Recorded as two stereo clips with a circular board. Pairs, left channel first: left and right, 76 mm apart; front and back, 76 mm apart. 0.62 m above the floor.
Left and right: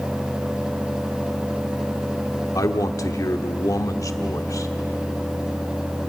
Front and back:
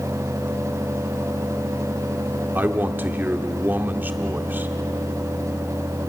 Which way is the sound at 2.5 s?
120° left.